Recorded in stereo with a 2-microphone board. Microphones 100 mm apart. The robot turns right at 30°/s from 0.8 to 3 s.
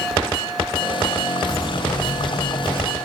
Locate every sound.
1.4 s footsteps: 30° left (ahead or behind), 4.5 m; by 2.9 s 60° left (ahead or behind), 6 m